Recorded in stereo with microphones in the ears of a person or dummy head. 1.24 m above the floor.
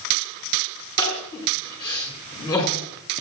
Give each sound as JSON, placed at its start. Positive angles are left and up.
{"t": 1.0, "sound": "crying", "side_deg": 20, "distance_m": 6.5}